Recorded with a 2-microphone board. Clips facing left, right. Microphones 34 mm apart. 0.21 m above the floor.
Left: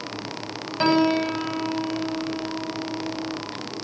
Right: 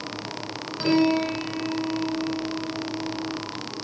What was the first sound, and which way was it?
A piano, 45° left (ahead or behind).